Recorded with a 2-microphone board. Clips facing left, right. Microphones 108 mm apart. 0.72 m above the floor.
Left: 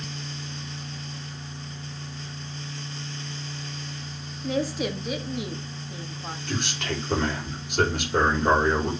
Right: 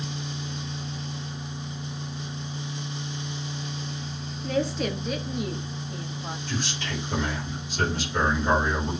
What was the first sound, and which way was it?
A woman speaking, 5° left (ahead or behind).